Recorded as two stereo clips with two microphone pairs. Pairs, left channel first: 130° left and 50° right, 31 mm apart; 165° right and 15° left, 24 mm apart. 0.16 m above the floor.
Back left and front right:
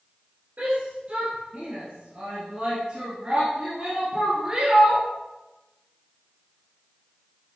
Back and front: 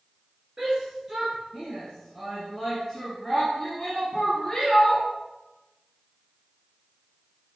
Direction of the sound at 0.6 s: 45° right.